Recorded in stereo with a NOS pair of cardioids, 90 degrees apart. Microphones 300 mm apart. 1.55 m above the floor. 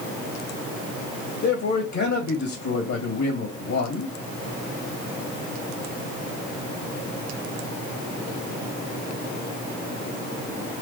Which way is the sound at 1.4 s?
65° left.